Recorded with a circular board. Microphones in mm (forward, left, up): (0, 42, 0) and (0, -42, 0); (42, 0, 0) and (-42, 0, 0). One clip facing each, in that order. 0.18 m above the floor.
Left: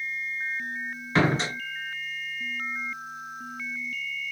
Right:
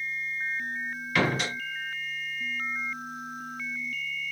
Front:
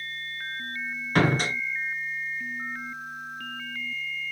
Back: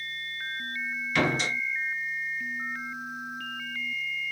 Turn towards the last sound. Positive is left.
turn(degrees=35)